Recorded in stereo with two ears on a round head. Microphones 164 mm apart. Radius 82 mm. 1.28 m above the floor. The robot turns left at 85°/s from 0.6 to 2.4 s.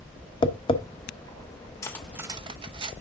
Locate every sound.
0.4 s tapping: 25° left (ahead or behind), 0.9 m; by 0.8 s 35° left (ahead or behind), 0.9 m
1.8 s cutlery clinking: 20° left (ahead or behind), 0.8 m; by 2.9 s 25° right (ahead or behind), 0.8 m